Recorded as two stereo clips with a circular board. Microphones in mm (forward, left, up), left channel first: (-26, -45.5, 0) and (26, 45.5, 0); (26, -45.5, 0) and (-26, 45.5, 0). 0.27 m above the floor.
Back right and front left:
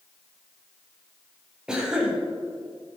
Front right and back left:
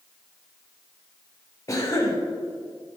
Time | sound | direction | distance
1.7 | a cough | 20° right | 1.4 m